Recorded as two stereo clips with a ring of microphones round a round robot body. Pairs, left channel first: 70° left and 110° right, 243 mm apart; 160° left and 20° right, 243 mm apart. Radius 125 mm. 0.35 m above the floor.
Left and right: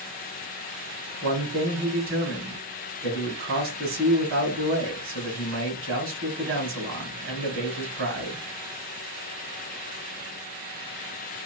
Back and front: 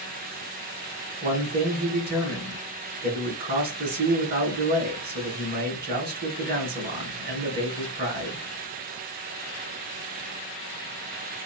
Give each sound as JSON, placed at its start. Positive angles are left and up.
{"t": 1.2, "sound": "a man speaking", "azimuth_deg": -75, "distance_m": 2.5}